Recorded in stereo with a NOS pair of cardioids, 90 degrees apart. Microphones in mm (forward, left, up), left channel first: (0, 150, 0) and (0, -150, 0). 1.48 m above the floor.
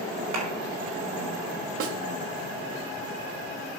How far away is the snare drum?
About 1.0 m.